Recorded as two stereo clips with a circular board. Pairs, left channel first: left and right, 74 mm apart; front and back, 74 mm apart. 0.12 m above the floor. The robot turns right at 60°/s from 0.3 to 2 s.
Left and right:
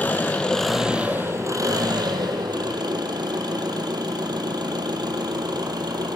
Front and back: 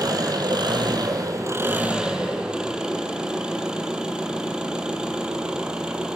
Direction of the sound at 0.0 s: 155° left.